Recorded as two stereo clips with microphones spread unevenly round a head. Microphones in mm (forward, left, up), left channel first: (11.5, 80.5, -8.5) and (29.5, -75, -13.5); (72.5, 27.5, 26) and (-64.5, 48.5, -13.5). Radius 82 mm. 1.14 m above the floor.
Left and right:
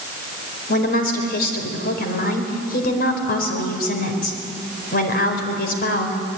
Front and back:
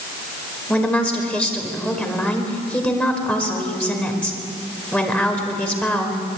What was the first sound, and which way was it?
A woman speaking, 70° left.